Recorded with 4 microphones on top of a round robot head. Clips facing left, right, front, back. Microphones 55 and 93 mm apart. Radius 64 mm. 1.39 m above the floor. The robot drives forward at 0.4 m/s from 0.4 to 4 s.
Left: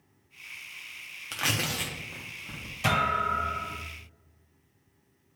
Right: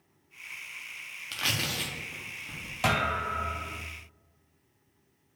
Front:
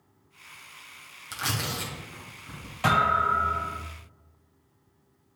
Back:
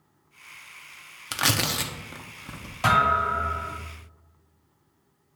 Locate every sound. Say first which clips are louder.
1.3 s tearing paper: left 2 dB, back 5 dB; 165° left, 0.7 m; by 2.7 s 170° left, 1.2 m
2.8 s a thud: left 2 dB, back 1 dB; 110° right, 3.5 m; by 3.8 s 115° right, 3.5 m